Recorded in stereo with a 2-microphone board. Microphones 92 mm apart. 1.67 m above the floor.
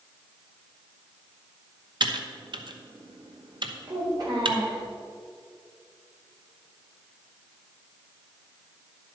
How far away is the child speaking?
About 4 m.